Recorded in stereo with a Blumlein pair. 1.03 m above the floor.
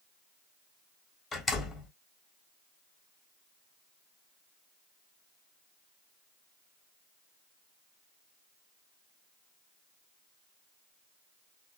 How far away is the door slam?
About 1.3 m.